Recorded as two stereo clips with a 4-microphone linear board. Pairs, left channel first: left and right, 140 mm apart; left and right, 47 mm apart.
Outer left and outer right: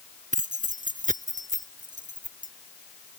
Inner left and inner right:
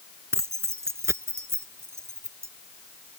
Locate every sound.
0.3 s keys jangling: 90° right